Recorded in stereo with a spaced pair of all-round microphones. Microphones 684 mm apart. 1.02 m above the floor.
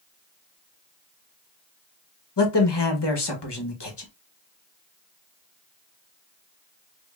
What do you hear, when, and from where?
2.4 s a man speaking: 35° left (ahead or behind), 1.0 m